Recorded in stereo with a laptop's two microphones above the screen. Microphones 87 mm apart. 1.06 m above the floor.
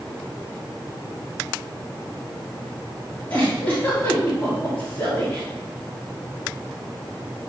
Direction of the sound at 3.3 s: 20° left (ahead or behind).